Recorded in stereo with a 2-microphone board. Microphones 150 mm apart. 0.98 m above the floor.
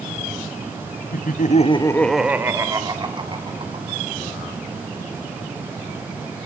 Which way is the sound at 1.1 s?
75° left (ahead or behind).